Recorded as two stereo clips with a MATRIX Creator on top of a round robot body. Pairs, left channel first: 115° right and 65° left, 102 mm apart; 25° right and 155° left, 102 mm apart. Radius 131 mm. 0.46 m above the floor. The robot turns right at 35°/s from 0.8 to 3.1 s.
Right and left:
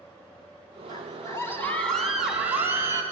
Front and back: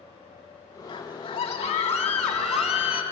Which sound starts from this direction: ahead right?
A scream, at 0.9 s.